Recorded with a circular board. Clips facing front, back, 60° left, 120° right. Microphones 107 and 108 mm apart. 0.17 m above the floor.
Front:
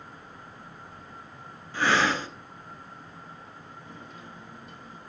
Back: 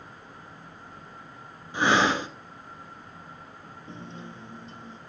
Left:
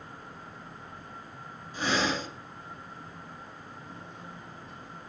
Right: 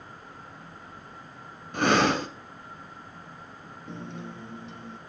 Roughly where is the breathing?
Right.